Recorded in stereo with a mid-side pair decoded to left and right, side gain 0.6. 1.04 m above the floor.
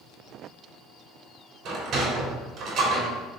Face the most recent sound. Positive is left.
turn(degrees=-55)